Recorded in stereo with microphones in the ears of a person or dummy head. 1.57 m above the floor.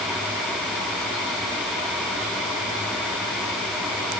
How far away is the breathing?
I don't hear breathing.